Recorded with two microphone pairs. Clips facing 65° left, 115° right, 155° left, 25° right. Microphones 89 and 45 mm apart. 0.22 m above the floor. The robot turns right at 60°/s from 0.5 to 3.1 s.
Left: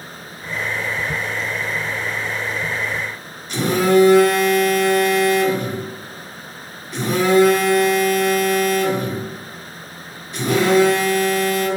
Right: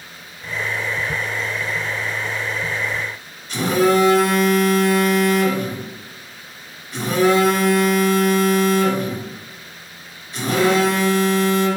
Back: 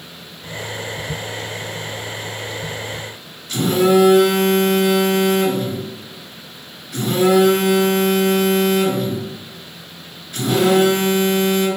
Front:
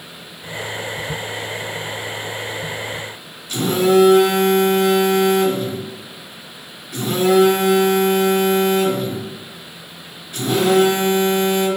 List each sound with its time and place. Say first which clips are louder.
3.5 s a phone buzzing: left 1 dB, back 1 dB; 95° right, 2.0 m